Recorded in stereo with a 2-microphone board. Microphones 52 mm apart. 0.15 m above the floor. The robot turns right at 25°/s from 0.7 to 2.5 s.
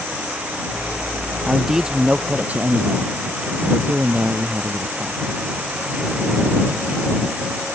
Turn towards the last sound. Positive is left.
turn(degrees=-25)  # may be behind; listen again after turning